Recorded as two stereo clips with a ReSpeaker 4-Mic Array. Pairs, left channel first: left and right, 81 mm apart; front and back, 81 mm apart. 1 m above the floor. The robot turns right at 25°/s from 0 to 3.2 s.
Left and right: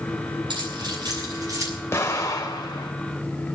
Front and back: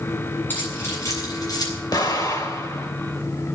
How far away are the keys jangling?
About 8.5 m.